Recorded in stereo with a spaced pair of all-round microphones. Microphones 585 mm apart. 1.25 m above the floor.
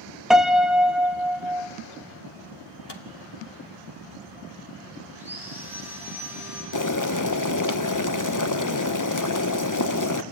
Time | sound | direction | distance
0.3 | a piano | centre (ahead or behind) | 0.9 m
2.9 | a microwave | 45° left (ahead or behind) | 1.4 m
5.2 | sawing | 5° right (ahead or behind) | 7.5 m
6.7 | boiling | 35° left (ahead or behind) | 0.8 m